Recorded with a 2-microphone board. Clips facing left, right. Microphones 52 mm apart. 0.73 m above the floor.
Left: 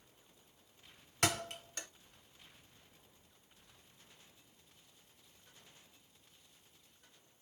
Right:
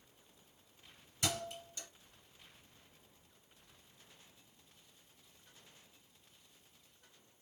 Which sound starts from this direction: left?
A thud, at 1.2 s.